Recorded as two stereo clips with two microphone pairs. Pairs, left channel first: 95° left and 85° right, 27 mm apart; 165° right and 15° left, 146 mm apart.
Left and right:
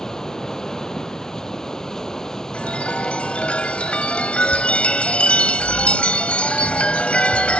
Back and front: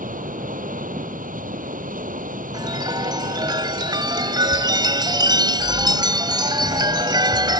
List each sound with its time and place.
0.0 s running water: 30° left
2.5 s a chime: 70° left